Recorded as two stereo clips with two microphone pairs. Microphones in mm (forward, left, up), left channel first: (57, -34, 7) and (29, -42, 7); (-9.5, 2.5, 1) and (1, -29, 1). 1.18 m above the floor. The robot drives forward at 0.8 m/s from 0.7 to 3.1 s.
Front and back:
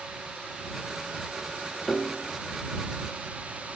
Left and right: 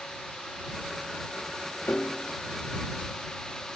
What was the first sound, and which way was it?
A piano, 95° left.